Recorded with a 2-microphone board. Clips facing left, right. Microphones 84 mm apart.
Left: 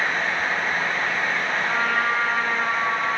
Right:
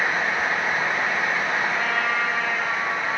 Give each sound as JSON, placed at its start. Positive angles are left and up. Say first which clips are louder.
{"t": 1.7, "sound": "a trumpet", "louder": "left 2 dB", "side_deg": 45, "distance_m": 5.0}